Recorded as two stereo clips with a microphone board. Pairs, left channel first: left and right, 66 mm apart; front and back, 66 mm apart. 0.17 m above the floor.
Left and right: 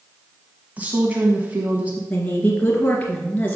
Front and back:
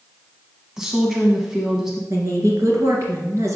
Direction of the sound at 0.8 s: 110° right.